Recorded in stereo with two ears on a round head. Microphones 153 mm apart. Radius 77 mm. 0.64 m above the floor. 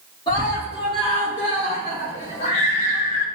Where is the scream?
30° left (ahead or behind), 2.0 m; by 3.2 s 45° left (ahead or behind), 5 m.